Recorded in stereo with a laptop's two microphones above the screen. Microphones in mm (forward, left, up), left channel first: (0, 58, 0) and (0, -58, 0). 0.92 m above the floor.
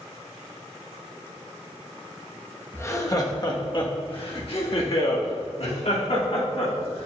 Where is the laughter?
25° left (ahead or behind), 1.4 m; by 7.1 s 75° left (ahead or behind), 3.5 m.